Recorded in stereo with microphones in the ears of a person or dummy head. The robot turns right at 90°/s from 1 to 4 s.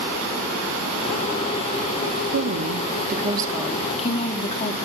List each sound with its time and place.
2.3 s a woman speaking: 125° right, 2.5 m; by 4.8 s 25° left, 2.5 m